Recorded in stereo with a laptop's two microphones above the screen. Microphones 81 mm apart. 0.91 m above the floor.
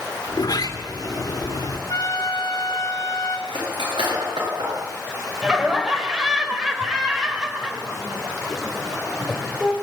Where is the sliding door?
55° left (ahead or behind), 2.5 m.